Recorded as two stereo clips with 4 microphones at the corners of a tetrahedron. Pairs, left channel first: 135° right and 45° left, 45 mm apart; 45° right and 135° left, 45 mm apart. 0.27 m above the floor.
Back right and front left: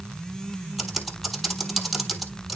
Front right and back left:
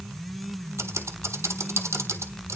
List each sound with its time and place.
0.8 s typing on a keyboard: 130° left, 1.5 m